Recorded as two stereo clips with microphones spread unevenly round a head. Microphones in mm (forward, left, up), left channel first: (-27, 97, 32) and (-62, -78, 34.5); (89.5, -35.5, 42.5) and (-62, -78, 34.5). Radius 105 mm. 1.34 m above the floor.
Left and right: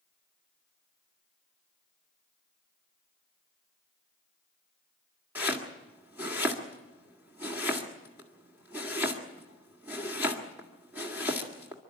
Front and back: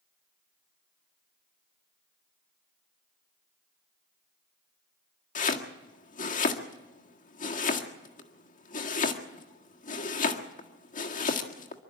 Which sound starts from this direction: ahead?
Chopping, at 5.3 s.